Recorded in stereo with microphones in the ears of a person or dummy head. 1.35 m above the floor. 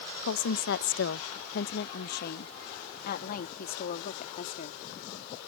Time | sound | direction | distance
0.2 | a woman speaking | 75° left (ahead or behind) | ?